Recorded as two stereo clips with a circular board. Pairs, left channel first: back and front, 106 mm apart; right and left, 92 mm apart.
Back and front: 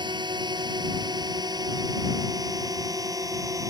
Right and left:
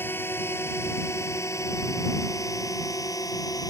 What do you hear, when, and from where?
0.0 s a drone: 30° right; by 3.7 s 50° right